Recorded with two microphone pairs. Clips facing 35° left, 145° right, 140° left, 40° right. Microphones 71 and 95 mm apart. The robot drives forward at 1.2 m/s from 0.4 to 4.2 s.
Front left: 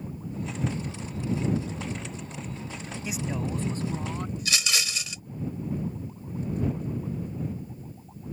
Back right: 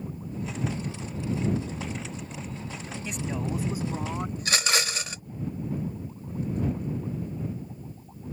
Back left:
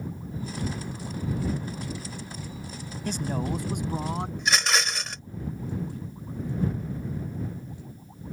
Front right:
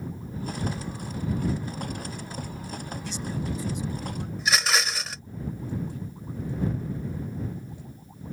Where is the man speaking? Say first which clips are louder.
Even, back left 5 dB; 115° left; by 4.3 s 145° left.